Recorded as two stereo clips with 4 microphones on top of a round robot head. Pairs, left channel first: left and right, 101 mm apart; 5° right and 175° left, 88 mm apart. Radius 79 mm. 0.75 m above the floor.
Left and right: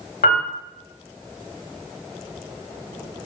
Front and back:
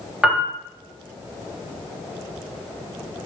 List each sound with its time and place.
0.2 s a piano: 95° left, 0.8 m